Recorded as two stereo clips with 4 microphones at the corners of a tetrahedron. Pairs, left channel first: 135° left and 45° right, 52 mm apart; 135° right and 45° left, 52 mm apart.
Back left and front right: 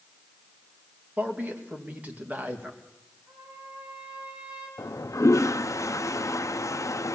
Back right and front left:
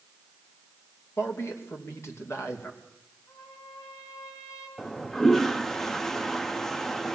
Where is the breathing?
No breathing in this recording.